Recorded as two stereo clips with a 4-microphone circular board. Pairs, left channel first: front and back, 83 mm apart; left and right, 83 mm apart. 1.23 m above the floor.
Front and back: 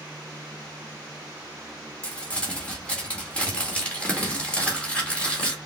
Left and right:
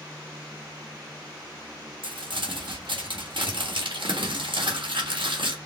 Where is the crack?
I don't hear a crack.